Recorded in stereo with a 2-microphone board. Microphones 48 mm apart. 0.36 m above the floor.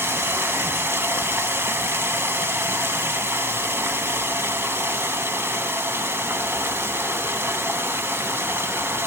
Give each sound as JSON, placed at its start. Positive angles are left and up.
{"t": 0.0, "sound": "running water", "side_deg": -60, "distance_m": 0.7}